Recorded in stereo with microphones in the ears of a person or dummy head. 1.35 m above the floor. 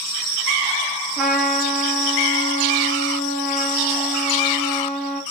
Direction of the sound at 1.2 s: 5° left (ahead or behind).